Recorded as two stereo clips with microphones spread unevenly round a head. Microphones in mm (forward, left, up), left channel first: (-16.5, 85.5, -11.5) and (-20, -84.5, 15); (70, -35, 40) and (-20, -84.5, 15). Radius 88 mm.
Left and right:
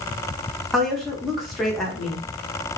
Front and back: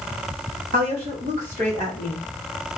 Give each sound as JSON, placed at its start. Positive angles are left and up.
{"t": 0.7, "sound": "a woman speaking", "azimuth_deg": 180, "distance_m": 1.1}